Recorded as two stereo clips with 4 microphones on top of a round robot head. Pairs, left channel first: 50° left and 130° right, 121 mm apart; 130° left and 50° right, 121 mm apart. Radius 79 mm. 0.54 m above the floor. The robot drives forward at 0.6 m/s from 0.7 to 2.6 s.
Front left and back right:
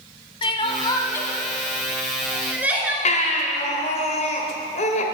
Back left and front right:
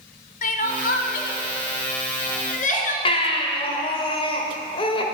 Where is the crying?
105° left, 0.7 m; by 3.0 s 155° left, 1.5 m.